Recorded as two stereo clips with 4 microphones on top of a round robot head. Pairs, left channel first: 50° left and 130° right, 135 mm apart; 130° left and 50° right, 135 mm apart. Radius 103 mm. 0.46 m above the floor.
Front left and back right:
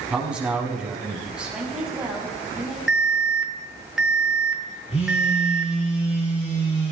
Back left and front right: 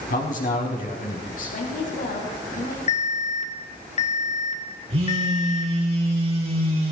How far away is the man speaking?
About 5.5 m.